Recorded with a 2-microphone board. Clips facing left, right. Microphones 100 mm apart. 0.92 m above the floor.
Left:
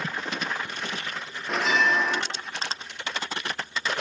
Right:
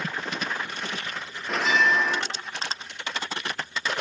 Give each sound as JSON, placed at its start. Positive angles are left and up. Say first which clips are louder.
{"t": 1.5, "sound": "a bell", "louder": "right 1 dB", "side_deg": 5, "distance_m": 0.7}